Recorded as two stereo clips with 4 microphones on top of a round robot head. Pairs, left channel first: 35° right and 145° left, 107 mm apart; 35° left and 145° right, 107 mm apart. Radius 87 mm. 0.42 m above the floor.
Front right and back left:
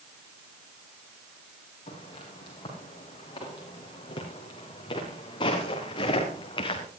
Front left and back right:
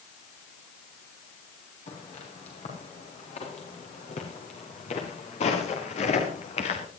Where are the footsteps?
10° left, 9.5 m.